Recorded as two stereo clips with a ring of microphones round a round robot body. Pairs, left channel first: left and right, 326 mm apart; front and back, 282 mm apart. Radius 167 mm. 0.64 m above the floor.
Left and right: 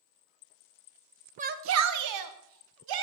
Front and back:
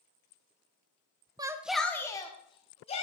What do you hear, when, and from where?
1.4 s a shout: 125° right, 0.8 m; by 3.0 s 70° right, 2 m